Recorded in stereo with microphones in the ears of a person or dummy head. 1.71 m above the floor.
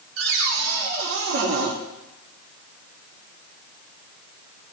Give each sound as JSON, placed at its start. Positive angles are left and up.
{"t": 0.2, "sound": "a cupboard door", "side_deg": -75, "distance_m": 2.5}